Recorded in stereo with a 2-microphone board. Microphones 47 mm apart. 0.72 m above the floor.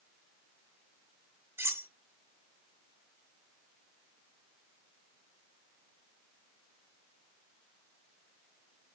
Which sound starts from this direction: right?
Cutlery clinking, at 1.6 s.